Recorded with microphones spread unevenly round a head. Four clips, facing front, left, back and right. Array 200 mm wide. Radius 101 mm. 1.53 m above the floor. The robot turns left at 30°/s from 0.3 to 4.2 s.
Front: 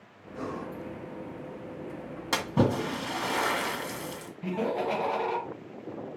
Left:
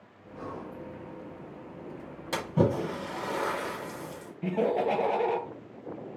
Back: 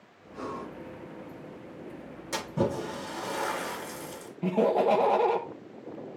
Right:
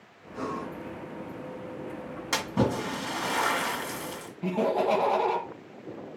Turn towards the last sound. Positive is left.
turn(degrees=180)